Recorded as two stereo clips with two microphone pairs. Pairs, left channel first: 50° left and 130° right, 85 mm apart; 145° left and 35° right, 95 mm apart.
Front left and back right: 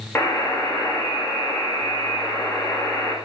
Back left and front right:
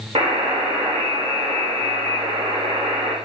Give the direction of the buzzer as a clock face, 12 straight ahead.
1 o'clock.